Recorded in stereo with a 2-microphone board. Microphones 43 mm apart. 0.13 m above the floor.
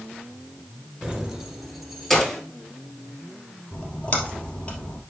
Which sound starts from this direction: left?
A splash, at 3.7 s.